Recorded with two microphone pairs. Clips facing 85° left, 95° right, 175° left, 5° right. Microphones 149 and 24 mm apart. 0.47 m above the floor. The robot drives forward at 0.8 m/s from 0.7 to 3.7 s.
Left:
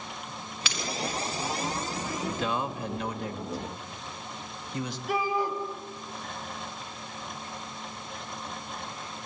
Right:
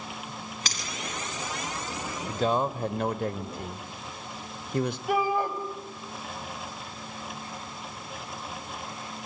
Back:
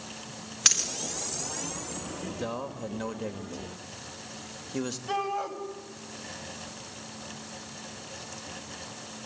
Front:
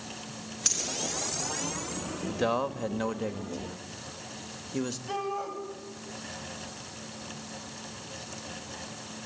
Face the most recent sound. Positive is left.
turn(degrees=-115)